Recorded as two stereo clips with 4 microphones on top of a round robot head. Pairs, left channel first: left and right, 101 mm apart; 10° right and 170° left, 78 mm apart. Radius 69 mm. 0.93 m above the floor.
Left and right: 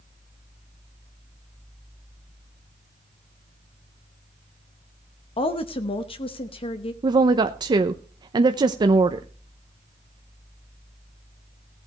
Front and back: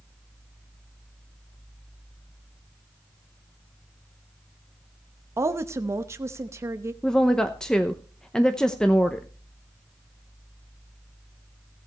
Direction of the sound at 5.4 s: 115° left.